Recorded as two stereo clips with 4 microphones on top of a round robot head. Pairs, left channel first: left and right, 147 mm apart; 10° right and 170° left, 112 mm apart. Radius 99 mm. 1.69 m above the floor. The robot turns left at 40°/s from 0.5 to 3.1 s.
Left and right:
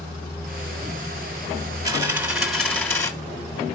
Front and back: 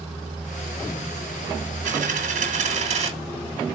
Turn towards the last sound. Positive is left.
turn(degrees=155)